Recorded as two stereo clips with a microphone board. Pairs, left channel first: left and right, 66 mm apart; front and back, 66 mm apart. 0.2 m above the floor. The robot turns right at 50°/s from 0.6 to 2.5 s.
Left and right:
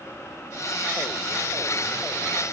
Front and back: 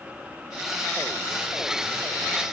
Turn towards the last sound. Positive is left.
No sound to turn to.